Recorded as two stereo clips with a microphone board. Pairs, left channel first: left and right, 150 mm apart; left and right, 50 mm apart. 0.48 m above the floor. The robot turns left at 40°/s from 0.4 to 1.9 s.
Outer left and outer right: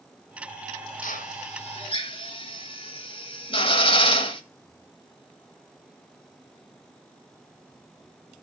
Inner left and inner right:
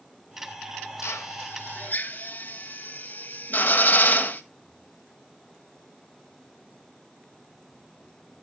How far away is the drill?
About 1.8 m.